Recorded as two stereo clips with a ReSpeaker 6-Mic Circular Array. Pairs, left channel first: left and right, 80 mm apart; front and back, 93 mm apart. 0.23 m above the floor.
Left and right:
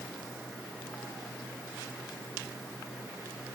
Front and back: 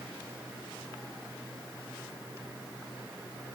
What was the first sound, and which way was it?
Only background noise.